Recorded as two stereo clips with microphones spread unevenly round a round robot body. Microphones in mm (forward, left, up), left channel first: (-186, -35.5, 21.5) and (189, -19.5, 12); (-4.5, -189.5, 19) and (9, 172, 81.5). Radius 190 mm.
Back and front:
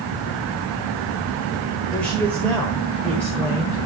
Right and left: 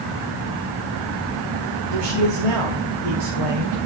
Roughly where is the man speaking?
Left.